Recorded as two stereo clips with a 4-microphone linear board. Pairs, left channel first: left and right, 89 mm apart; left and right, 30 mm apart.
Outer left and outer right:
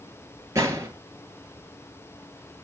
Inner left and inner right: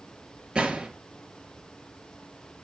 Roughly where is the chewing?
No chewing in this recording.